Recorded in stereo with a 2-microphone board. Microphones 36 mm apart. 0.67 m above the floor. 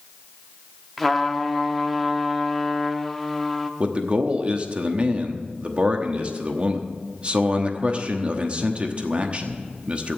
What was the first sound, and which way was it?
A trumpet, centre (ahead or behind).